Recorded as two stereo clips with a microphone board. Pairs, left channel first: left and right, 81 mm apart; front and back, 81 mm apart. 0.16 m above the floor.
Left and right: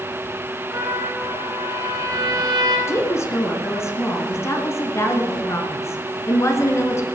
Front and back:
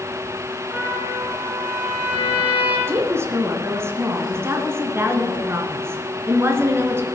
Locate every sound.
0.7 s a trumpet: 110° right, 5 m
2.9 s a woman speaking: 135° left, 2 m